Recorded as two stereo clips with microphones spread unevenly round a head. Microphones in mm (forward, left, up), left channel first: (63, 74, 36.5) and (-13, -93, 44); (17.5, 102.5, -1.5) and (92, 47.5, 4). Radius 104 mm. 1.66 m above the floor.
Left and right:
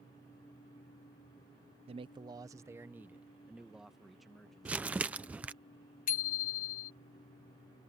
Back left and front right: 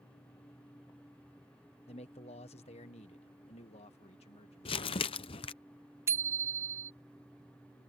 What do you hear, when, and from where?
1.9 s a man speaking: 175° right; by 4.9 s 155° left
4.7 s crumpling: 165° left
6.1 s a bicycle bell: 25° left